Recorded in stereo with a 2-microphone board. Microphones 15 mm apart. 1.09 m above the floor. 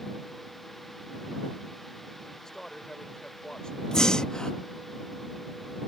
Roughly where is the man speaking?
Left.